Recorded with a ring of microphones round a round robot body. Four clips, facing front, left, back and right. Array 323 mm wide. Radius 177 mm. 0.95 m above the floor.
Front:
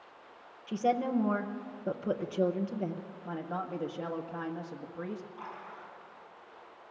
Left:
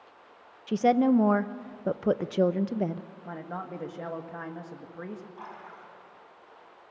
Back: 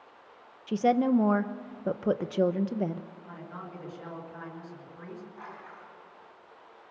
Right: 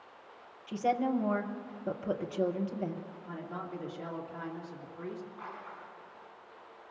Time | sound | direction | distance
0.7 | a woman speaking | 120° left | 0.7 m
3.2 | a man speaking | 45° left | 1.8 m
5.4 | a splash | 105° left | 4.5 m